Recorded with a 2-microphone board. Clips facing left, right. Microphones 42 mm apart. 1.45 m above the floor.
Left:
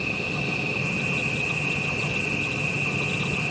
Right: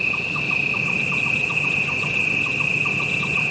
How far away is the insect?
About 1.5 m.